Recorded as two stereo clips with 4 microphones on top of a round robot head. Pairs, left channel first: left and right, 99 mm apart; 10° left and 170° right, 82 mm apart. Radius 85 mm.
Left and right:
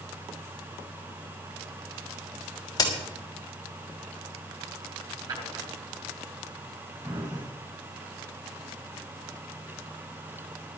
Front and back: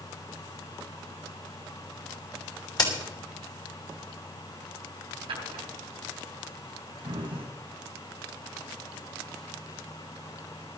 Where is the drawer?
140° right, 3.5 m.